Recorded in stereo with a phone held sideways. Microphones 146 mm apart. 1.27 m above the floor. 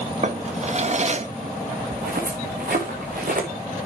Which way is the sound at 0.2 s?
50° right (ahead or behind).